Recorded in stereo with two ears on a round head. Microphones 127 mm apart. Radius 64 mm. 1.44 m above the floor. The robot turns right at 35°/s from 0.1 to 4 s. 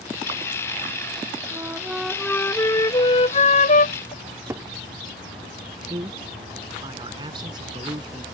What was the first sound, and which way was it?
A flute, 20° right.